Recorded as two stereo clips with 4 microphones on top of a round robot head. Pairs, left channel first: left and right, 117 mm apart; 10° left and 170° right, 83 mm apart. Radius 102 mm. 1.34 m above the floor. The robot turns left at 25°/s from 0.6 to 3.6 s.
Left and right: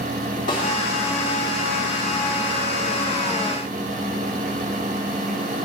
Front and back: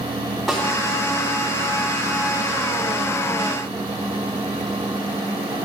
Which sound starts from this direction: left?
A snare drum, at 0.5 s.